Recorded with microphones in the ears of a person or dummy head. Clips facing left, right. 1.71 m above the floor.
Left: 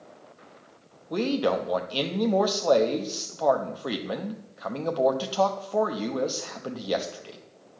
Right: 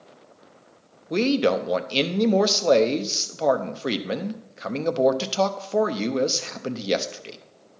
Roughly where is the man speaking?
Right.